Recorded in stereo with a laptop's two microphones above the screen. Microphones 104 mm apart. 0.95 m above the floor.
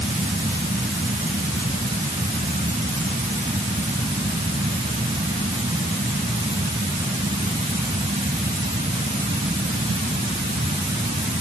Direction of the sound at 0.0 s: 85° right.